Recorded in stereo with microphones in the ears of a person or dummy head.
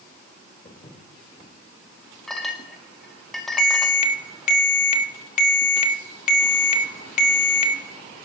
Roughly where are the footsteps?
Left.